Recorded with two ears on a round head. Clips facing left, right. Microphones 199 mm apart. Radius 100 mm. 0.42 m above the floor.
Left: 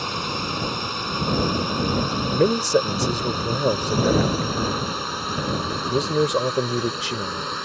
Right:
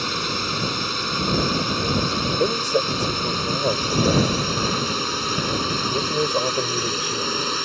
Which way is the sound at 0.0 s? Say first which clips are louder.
Right 1 dB; 25° right (ahead or behind).